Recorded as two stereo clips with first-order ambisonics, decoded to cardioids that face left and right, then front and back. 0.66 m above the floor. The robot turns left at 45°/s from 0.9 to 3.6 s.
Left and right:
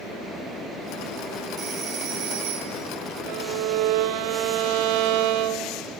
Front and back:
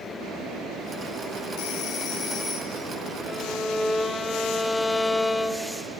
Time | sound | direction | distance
1.6 | a phone ringing | 30° right | 2.0 m
3.3 | a violin | 65° right | 0.5 m